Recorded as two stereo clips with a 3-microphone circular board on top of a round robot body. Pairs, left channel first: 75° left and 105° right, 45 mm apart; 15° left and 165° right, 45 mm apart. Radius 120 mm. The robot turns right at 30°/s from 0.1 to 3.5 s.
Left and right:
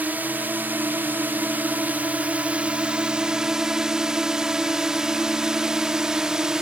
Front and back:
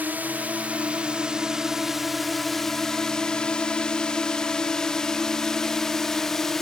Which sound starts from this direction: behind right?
A drone, at 0.0 s.